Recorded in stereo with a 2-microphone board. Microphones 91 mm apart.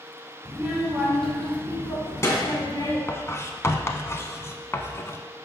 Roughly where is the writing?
Left.